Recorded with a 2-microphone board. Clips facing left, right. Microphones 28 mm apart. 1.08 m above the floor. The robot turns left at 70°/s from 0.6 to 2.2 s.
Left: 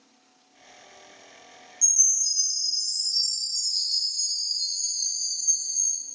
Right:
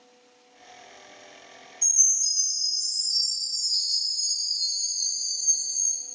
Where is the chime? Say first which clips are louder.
Even; 55° right (ahead or behind), 3 m; by 6.0 s 80° right, 3 m.